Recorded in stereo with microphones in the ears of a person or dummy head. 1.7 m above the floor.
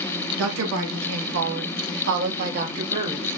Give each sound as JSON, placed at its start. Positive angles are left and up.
{"t": 0.4, "sound": "a woman speaking", "side_deg": -85, "distance_m": 2.5}